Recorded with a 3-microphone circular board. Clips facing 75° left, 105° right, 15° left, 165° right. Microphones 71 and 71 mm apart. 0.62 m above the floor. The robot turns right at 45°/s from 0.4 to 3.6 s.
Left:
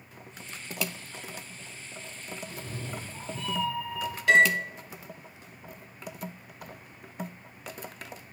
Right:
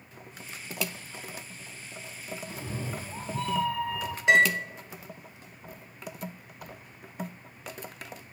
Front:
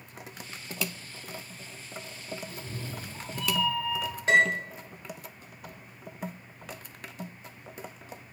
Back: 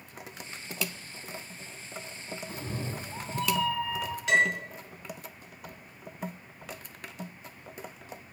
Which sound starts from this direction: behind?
A cat meowing, at 2.5 s.